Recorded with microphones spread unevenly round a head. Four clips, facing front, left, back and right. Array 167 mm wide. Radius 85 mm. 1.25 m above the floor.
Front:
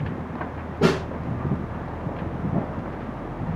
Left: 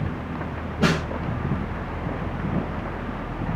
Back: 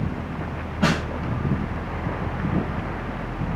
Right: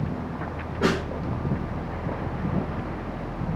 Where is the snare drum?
Straight ahead, 5 m.